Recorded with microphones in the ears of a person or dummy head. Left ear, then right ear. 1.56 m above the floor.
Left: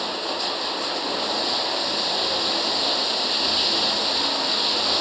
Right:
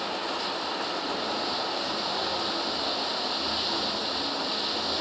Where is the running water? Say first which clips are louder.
Left 4 dB; 25° left (ahead or behind).